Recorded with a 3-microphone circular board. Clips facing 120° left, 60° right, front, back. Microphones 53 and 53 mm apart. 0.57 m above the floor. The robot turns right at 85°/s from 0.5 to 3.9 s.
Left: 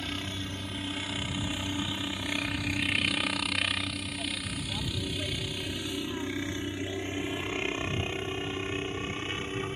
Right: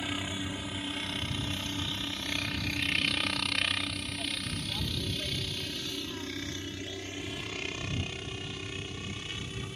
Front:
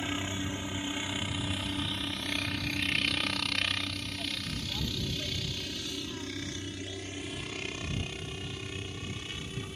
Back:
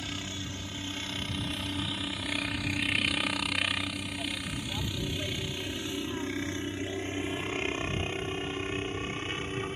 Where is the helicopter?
5° left; by 9.8 s 155° left.